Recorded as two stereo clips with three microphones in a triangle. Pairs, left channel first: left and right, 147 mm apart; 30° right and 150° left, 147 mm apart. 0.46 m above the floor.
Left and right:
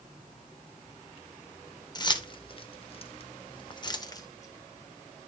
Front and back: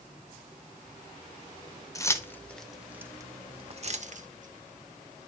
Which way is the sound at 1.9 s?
35° left.